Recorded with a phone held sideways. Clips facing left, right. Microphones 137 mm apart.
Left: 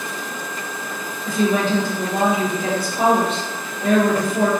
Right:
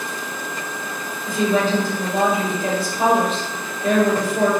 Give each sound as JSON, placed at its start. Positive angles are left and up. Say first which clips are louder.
{"t": 1.2, "sound": "a woman speaking", "louder": "even", "side_deg": 65, "distance_m": 1.8}